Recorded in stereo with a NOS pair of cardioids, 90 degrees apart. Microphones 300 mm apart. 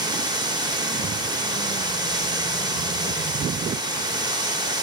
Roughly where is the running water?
Ahead.